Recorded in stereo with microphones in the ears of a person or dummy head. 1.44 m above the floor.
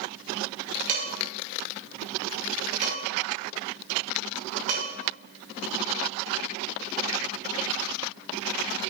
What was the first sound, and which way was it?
Dishes clattering, 40° right (ahead or behind).